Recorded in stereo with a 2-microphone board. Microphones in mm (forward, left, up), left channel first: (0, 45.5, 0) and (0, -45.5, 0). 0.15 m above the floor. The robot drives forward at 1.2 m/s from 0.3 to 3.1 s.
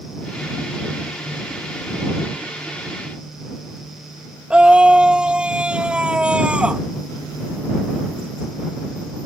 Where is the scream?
10° right (ahead or behind).